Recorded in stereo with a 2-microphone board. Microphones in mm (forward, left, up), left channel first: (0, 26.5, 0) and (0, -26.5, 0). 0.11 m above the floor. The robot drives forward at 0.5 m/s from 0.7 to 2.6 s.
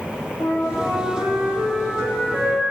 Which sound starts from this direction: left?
A flute, at 0.4 s.